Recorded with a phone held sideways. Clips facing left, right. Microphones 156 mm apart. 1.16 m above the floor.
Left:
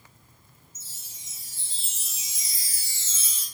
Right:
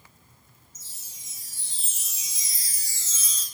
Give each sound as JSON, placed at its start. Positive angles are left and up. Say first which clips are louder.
{"t": 0.8, "sound": "a chime", "louder": "left 1 dB", "side_deg": 25, "distance_m": 0.5}